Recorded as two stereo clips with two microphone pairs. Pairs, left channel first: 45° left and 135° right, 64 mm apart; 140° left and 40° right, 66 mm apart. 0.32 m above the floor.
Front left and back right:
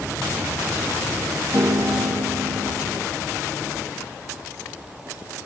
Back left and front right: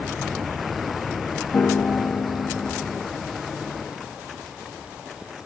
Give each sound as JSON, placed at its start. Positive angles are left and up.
{"t": 1.5, "sound": "a piano", "azimuth_deg": -160, "distance_m": 0.5}